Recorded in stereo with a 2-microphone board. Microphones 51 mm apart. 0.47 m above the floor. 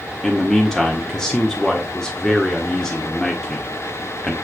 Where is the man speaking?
10° left (ahead or behind), 1.3 m.